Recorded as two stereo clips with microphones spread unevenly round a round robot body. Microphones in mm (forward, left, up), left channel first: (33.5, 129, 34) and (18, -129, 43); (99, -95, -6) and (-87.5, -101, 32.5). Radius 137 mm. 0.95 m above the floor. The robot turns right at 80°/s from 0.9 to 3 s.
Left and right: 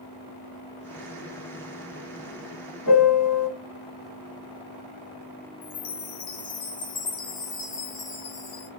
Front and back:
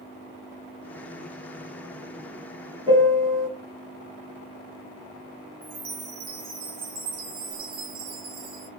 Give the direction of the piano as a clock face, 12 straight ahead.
9 o'clock.